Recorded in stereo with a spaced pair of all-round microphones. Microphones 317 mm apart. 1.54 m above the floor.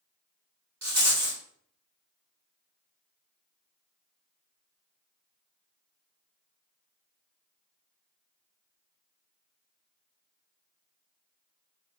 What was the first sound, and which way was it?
A rattle, 60° right (ahead or behind).